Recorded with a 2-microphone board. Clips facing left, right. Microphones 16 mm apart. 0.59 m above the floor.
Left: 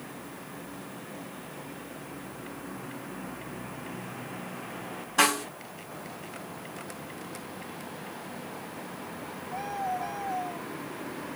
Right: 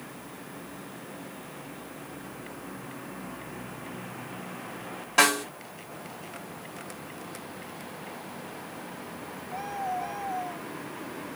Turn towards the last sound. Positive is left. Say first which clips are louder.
# right 2 dB
turn(degrees=-65)  # may be behind; listen again after turning